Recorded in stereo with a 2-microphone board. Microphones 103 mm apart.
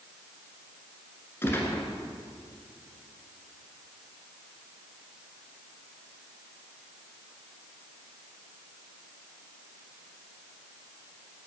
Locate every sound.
1.4 s a gunshot: 25° left (ahead or behind), 1.6 m